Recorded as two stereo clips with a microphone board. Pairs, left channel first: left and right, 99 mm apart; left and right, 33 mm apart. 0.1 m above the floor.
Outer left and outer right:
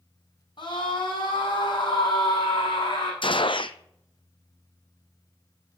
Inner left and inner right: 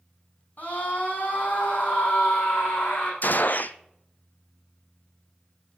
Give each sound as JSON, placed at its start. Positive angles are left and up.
{"t": 0.6, "sound": "a scream", "side_deg": 55, "distance_m": 6.5}
{"t": 3.2, "sound": "a gunshot", "side_deg": 60, "distance_m": 0.7}